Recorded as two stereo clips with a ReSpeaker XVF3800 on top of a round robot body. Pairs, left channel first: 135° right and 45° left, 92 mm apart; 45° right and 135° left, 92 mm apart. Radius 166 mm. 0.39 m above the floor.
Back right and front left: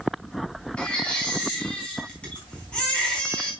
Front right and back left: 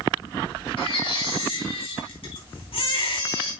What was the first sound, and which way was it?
A baby crying, 55° right.